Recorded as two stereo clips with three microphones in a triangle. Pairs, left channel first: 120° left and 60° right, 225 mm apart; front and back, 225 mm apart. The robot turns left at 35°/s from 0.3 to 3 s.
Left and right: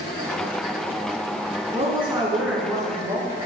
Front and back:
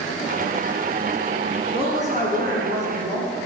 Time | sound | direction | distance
1.7 | a woman speaking | 115° right | 3.5 m